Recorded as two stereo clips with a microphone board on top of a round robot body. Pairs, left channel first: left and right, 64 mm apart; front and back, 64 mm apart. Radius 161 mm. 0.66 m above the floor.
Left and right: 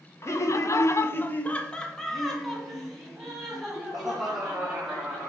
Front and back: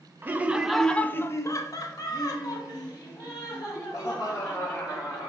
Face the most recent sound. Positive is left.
turn(degrees=-10)